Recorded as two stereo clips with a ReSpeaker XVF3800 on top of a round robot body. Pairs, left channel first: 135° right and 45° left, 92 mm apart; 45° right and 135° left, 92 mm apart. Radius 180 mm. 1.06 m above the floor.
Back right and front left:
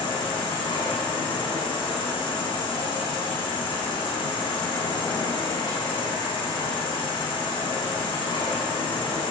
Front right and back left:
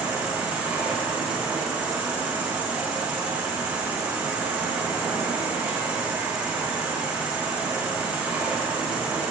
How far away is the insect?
About 3.5 m.